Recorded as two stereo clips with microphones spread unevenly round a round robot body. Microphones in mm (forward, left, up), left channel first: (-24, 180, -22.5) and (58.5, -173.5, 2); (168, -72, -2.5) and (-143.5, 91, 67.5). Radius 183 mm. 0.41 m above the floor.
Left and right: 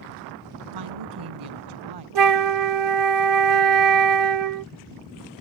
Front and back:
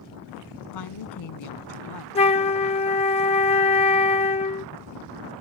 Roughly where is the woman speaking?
Ahead right.